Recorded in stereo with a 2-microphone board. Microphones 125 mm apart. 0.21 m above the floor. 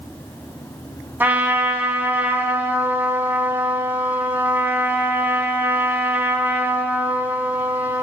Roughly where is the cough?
No cough in this recording.